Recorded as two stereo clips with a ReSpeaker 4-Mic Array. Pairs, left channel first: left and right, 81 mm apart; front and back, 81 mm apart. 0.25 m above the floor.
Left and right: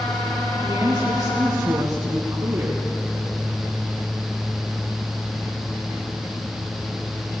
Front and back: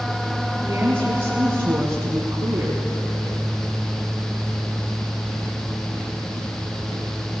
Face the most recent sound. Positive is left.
turn(degrees=-130)